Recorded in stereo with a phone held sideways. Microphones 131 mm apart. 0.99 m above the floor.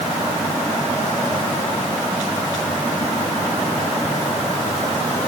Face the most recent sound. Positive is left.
No sound to turn to.